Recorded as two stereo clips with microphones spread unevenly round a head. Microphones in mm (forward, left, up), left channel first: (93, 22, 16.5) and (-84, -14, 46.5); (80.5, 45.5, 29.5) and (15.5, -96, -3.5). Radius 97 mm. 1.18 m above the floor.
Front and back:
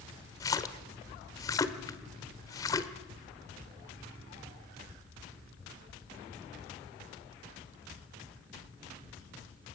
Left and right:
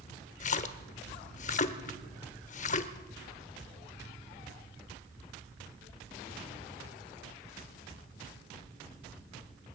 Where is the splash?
90° left, 1.3 m.